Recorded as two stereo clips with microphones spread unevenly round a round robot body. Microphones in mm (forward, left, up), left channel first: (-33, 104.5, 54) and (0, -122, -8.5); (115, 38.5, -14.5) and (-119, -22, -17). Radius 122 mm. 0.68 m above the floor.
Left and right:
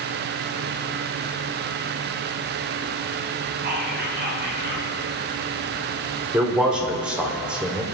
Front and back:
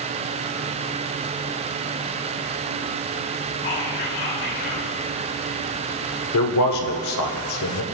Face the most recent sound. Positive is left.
turn(degrees=0)